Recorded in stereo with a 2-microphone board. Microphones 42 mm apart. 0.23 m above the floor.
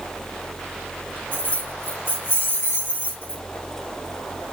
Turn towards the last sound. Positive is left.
turn(degrees=50)  # may be behind; listen again after turning